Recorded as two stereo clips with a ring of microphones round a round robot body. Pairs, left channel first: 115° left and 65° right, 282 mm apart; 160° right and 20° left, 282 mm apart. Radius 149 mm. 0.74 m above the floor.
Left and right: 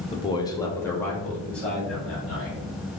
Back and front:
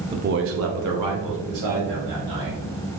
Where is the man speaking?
70° left, 0.6 m; by 2.6 s 25° left, 3 m.